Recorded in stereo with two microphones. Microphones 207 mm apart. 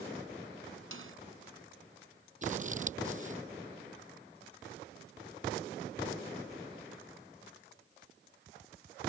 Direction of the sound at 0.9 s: 80° right.